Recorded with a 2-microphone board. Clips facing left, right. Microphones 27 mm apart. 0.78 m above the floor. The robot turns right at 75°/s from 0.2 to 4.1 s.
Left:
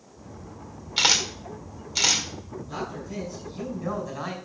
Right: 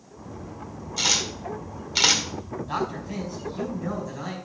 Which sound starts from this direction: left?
A camera shutter, at 1.0 s.